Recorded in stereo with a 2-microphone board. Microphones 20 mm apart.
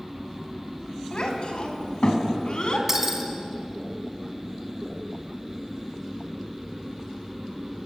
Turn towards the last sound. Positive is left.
turn(degrees=-25)  # may be behind; listen again after turning